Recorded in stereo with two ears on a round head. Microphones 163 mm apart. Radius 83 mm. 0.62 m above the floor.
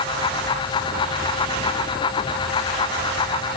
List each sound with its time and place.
Only background noise.